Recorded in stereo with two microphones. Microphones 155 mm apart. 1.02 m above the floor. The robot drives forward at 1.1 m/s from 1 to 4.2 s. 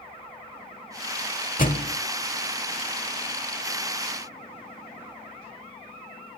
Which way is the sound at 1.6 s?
60° left (ahead or behind).